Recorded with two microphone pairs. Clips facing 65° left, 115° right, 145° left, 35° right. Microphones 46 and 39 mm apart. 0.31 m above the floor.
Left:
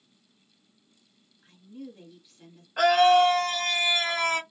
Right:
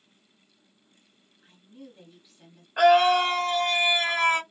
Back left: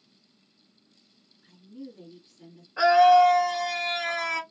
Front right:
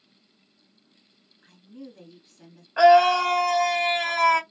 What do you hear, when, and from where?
1.4 s a woman speaking: 30° right, 1.8 m
2.8 s a scream: 45° right, 2 m